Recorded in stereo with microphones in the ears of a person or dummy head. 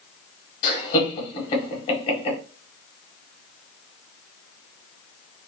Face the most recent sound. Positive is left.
turn(degrees=40)  # may be behind; listen again after turning